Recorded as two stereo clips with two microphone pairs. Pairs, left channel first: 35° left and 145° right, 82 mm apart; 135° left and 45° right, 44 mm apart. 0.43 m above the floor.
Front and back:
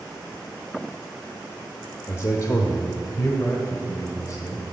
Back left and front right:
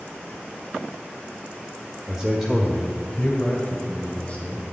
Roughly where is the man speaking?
Ahead left.